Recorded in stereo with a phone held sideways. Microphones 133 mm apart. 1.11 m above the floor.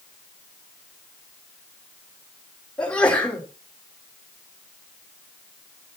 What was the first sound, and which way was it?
A sneeze, 10° left (ahead or behind).